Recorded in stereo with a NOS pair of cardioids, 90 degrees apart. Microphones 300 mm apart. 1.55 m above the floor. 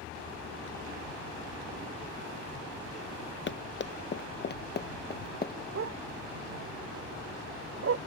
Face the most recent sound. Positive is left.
turn(degrees=-45)